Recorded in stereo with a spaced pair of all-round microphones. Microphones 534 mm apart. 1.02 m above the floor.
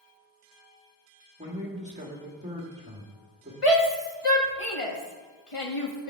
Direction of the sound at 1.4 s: 15° right (ahead or behind).